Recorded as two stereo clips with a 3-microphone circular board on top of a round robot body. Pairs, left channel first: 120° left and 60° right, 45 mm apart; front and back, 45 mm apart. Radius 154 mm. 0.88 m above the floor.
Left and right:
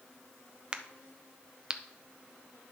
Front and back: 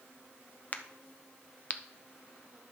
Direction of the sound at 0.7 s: 5° right.